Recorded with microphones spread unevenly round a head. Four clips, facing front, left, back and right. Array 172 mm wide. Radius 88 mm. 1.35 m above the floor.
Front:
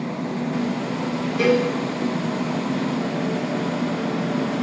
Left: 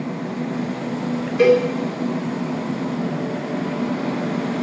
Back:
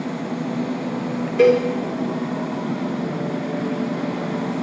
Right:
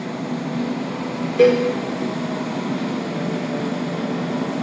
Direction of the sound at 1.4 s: 135° right.